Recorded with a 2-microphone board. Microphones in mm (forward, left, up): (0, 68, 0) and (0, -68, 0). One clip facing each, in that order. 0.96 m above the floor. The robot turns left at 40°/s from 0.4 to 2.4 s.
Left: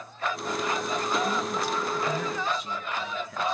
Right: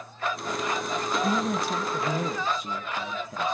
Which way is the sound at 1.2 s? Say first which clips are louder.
Right 2 dB; 105° right.